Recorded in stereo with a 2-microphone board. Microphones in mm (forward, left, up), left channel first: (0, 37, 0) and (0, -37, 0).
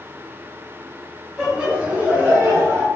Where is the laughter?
10° right (ahead or behind), 1.0 m; by 2.9 s 50° right (ahead or behind), 1.2 m.